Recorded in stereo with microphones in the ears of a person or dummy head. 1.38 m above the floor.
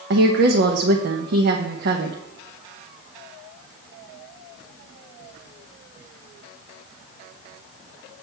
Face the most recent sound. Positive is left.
turn(degrees=-55)  # may be behind; listen again after turning